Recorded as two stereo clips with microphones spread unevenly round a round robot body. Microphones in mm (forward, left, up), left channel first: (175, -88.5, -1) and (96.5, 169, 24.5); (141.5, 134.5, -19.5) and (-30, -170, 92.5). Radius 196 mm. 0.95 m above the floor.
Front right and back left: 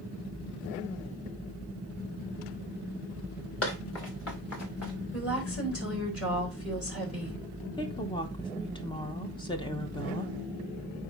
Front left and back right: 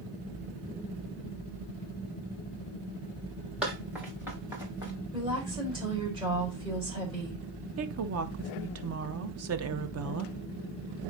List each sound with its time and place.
3.6 s running footsteps: 35° right, 4.5 m; by 4.9 s 45° right, 5 m
5.1 s a woman speaking: 40° right, 4 m
7.8 s a woman speaking: 90° right, 0.8 m